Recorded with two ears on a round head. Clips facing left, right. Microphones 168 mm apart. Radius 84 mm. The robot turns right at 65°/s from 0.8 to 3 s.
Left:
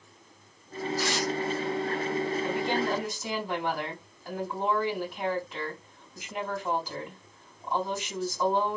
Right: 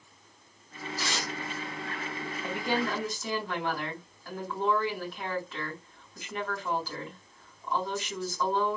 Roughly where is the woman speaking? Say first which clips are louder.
Left 3 dB; ahead.